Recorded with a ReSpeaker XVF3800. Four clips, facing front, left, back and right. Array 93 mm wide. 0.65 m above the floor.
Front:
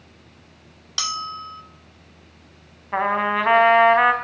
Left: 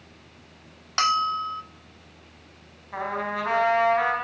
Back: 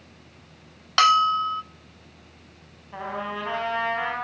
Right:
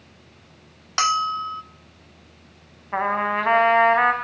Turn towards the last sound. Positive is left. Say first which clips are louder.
# right 6 dB, front 11 dB
turn(degrees=-35)